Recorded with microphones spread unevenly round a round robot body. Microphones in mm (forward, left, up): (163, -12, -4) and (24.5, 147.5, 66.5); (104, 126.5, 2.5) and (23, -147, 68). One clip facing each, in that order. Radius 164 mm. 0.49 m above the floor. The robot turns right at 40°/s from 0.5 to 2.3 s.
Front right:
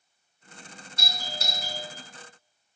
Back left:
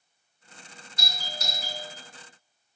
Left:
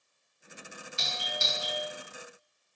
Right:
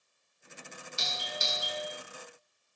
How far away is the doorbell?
About 1.5 m.